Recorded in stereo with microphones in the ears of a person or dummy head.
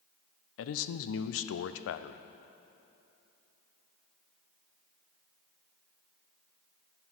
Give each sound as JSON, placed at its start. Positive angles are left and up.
{"t": 0.6, "sound": "a man speaking", "side_deg": 80, "distance_m": 0.5}